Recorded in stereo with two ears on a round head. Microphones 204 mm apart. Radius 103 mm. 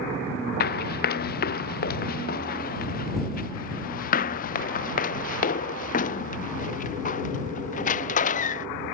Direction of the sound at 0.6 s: 45° left (ahead or behind).